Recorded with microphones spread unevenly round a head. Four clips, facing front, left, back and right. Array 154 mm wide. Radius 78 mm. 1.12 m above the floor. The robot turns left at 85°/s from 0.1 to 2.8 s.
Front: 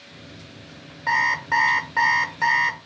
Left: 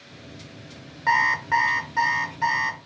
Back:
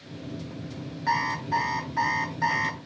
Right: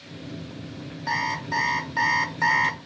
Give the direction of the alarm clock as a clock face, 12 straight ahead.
9 o'clock.